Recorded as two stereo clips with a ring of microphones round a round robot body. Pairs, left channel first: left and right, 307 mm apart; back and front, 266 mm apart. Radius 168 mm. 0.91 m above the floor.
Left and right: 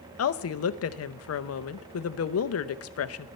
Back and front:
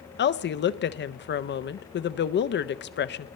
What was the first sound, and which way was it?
A woman speaking, 130° left.